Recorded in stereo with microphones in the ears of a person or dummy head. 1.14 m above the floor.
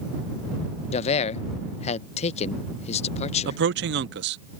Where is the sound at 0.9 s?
35° left (ahead or behind).